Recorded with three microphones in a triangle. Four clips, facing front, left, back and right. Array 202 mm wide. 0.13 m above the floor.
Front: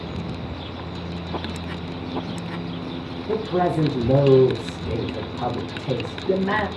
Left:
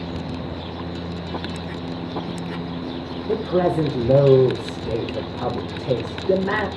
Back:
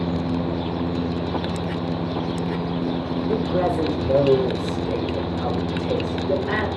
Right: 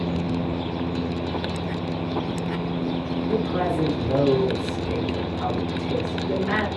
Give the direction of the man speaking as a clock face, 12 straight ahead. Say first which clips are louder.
Left 5 dB, front 1 dB; 10 o'clock.